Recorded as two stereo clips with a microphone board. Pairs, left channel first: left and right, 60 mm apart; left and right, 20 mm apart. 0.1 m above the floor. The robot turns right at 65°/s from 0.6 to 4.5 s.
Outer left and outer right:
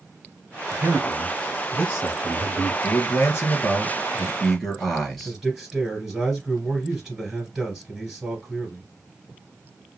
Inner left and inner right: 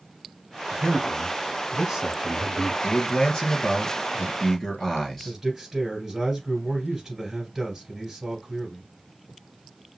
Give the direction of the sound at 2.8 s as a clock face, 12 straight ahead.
10 o'clock.